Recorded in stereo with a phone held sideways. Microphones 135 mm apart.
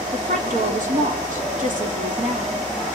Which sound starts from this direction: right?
A woman speaking, at 0.1 s.